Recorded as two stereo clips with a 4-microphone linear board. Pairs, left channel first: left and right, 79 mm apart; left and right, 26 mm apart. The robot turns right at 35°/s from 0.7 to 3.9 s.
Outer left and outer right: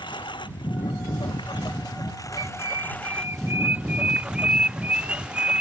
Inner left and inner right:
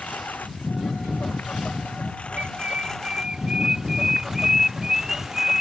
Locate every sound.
0.0 s a lawn mower: 80° left; by 5.6 s 165° right
2.4 s a bird: 65° right (ahead or behind); by 5.6 s 15° right (ahead or behind)